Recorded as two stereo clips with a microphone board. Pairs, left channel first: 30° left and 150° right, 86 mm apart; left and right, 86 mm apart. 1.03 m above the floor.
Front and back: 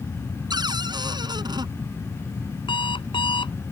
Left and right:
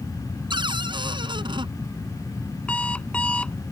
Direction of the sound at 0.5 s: 115° right.